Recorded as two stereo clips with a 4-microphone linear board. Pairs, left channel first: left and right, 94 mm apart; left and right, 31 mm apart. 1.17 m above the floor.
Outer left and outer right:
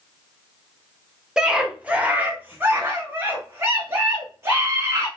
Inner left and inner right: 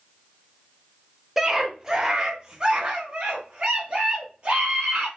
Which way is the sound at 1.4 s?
10° right (ahead or behind).